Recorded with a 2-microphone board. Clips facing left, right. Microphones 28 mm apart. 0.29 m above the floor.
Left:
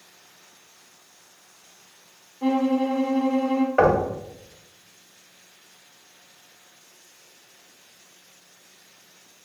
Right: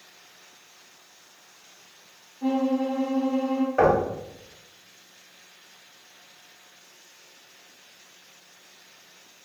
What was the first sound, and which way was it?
A violin, 65° left (ahead or behind).